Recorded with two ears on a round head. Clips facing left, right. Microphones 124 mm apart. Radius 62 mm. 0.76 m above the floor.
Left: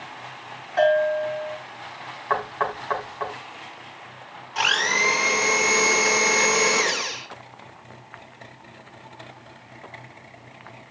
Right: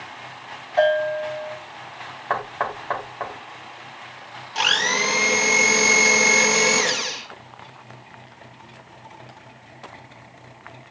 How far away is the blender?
About 2 m.